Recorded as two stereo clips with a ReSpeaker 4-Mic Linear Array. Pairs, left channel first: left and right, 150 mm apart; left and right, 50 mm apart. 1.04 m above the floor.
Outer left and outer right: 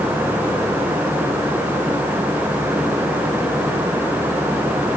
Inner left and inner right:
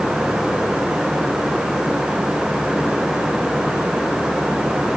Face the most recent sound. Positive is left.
No sound to turn to.